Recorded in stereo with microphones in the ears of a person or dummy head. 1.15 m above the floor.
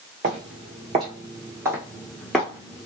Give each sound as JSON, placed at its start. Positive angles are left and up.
{"t": 0.2, "sound": "footsteps", "side_deg": -40, "distance_m": 1.5}